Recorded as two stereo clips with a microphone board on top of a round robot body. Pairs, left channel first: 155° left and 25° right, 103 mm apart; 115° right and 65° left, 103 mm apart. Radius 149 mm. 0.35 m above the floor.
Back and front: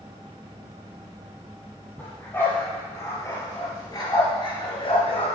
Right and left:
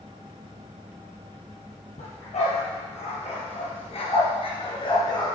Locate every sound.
2.0 s a dog barking: 130° right, 5 m; by 5.3 s 170° right, 2.5 m